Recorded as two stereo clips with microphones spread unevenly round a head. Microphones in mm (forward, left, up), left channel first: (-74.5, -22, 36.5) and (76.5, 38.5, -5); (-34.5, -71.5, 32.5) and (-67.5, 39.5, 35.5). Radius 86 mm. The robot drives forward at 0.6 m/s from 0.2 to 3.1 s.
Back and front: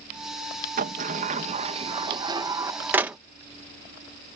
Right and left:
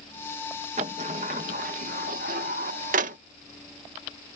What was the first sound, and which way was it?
A sliding door, 60° left.